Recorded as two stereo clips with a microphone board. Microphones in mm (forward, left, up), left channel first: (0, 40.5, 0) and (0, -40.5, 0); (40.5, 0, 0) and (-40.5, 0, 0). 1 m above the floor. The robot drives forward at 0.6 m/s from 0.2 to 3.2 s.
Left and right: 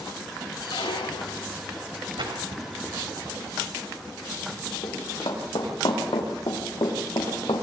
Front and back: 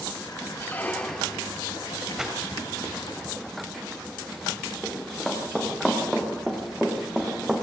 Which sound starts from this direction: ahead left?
A squeak, at 0.6 s.